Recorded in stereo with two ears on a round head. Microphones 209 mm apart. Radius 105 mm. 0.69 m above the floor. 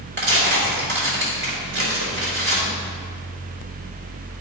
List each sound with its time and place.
0.2 s tearing paper: 50° right (ahead or behind), 3.5 m